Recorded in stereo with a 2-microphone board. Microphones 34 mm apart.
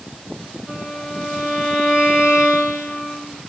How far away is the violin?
About 1.6 m.